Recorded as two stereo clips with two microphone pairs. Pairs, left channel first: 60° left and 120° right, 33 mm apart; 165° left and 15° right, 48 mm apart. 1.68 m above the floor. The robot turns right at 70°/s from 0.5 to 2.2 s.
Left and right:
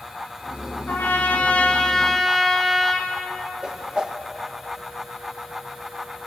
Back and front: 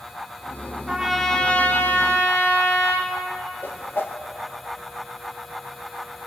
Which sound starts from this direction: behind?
A whoosh, at 3.6 s.